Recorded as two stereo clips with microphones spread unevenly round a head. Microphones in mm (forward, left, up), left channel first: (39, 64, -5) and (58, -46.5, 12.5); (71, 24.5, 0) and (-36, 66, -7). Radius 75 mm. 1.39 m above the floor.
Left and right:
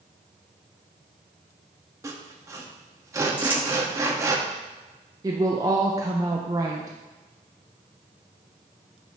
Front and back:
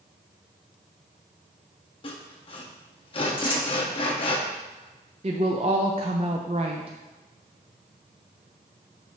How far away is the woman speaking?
About 0.5 m.